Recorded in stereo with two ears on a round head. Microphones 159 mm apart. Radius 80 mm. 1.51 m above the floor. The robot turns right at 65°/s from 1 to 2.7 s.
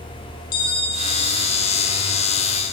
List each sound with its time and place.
0.5 s a bell: 55° left, 6 m; by 2.6 s 160° left, 6 m